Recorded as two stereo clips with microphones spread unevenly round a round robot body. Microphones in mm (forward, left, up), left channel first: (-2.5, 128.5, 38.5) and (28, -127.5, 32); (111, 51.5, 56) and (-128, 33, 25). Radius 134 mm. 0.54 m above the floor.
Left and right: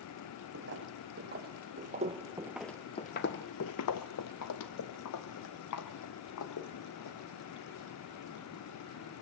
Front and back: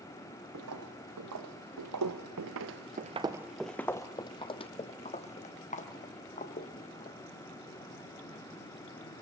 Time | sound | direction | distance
0.5 | footsteps | 135° right | 1.7 m